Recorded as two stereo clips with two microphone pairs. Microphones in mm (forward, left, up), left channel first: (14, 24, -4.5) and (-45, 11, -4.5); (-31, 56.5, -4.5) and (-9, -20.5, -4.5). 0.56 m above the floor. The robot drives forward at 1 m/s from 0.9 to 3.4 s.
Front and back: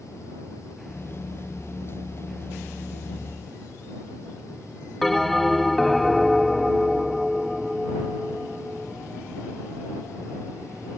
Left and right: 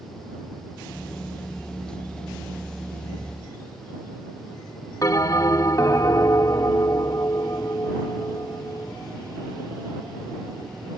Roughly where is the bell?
Left.